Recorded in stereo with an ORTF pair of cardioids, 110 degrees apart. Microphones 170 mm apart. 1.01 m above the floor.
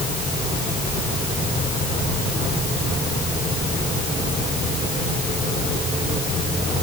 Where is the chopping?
No chopping in this recording.